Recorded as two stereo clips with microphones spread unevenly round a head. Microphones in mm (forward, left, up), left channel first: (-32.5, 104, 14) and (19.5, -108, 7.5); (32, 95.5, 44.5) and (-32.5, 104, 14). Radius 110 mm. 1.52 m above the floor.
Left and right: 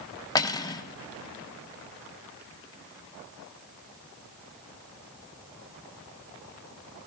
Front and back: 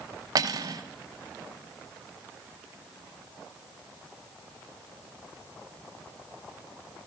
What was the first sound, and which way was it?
Cutlery clinking, 155° left.